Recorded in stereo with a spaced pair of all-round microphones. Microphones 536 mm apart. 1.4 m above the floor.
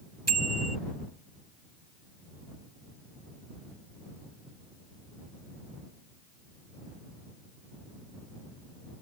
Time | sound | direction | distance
0.3 | a bicycle bell | 30° right (ahead or behind) | ?